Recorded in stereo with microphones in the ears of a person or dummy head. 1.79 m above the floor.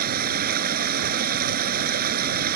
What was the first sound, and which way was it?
Running water, 50° right (ahead or behind).